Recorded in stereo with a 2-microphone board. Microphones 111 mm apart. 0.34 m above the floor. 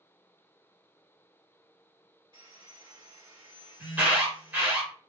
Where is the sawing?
45° right (ahead or behind), 1.8 m.